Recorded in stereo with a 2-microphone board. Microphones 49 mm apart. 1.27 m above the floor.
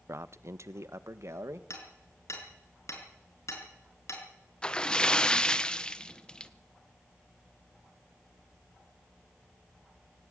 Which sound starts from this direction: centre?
A splash, at 4.6 s.